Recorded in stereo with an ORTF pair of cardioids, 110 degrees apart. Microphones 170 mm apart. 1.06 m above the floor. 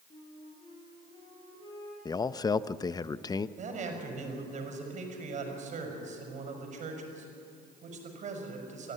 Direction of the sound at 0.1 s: 30° left.